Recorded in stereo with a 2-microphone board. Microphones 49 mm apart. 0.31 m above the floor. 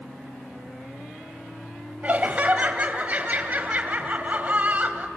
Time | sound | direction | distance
2.0 | laughter | 35° right (ahead or behind) | 2 m